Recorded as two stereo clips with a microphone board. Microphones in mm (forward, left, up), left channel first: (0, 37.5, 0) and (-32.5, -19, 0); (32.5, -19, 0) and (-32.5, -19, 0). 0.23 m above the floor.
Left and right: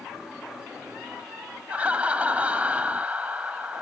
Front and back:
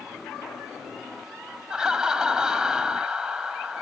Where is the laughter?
120° right, 1.0 m.